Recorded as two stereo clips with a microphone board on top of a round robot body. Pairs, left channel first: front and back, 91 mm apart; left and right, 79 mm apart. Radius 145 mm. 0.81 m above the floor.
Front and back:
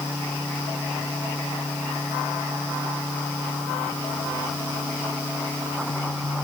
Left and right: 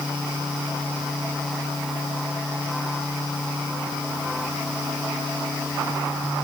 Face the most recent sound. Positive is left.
No sound to turn to.